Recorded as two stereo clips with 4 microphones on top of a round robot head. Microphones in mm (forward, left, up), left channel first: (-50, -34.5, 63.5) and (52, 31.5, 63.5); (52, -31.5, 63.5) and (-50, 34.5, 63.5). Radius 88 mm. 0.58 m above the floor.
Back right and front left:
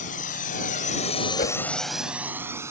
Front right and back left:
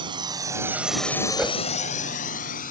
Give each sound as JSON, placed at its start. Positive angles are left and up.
{"t": 0.0, "sound": "a drone", "azimuth_deg": -160}
{"t": 1.4, "sound": "a whoosh", "azimuth_deg": -130}